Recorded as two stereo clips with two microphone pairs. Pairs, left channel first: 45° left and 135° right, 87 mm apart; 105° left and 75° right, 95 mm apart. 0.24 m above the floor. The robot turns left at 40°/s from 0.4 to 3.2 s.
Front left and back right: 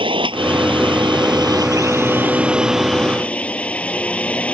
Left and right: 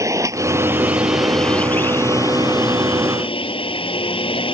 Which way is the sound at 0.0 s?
130° right.